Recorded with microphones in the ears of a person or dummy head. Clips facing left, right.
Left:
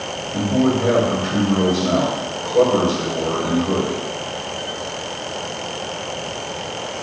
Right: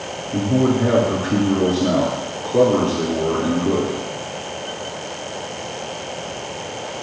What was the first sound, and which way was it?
A man speaking, 50° right (ahead or behind).